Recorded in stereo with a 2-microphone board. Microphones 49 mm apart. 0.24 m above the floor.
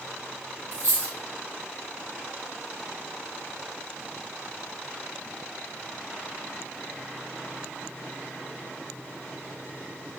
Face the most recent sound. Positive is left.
turn(degrees=-70)  # may be behind; listen again after turning